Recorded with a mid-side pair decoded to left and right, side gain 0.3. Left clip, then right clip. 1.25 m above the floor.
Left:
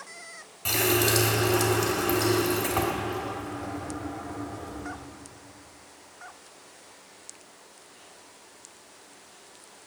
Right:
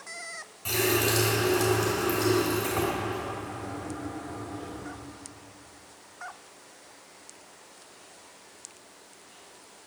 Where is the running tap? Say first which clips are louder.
Left 2 dB; 65° left, 1.9 m.